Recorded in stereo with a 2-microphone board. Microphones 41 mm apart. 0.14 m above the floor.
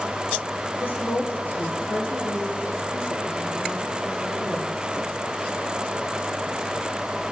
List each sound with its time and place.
0.8 s a woman speaking: 65° left (ahead or behind), 8 m